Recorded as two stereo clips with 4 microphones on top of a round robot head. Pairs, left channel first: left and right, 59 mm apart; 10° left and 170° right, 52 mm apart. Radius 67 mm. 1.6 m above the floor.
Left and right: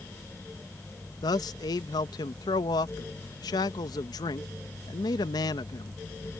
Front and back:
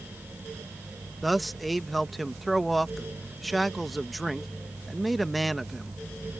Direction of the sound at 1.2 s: 100° left.